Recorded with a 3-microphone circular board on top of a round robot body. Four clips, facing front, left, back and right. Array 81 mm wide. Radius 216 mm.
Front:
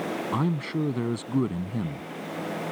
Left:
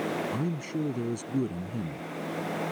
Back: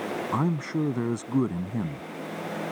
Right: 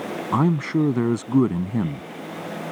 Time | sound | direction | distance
0.3 | a man speaking | 100° right | ?